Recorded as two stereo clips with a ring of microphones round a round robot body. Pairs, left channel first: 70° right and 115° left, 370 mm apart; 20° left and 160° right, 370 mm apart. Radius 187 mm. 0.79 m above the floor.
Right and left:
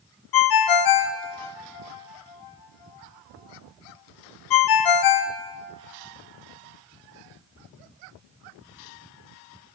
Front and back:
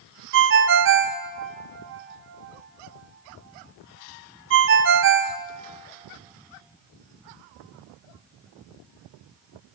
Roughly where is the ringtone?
Right.